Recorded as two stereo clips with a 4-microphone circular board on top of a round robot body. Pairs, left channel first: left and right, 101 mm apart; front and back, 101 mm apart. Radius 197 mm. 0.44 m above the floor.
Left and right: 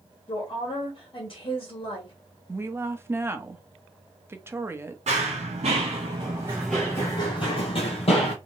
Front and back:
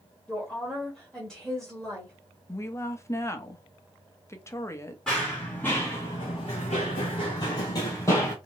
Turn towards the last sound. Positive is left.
turn(degrees=65)